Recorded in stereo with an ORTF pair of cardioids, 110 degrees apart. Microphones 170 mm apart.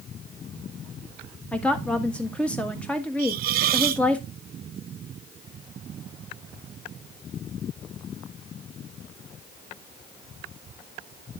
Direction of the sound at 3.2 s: 65° right.